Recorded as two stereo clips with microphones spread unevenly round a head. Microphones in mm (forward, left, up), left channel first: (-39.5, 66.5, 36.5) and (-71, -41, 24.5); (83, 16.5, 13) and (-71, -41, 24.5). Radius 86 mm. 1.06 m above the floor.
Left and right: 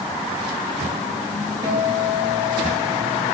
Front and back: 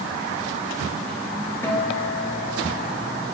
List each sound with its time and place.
1.6 s a guitar: 50° right, 1.8 m